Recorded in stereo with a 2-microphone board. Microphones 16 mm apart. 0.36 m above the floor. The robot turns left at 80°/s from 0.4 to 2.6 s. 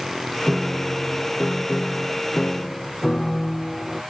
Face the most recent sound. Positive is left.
turn(degrees=30)